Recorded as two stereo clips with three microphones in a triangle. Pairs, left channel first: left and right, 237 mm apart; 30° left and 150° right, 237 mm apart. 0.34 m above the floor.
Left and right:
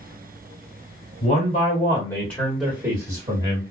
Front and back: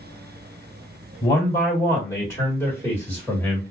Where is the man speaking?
95° left, 1.5 m; by 3.6 s 50° right, 1.6 m.